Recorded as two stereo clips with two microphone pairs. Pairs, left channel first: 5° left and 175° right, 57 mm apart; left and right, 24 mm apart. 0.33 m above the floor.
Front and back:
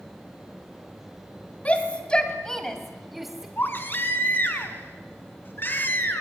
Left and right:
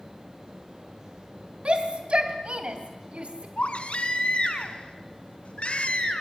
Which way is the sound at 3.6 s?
55° left.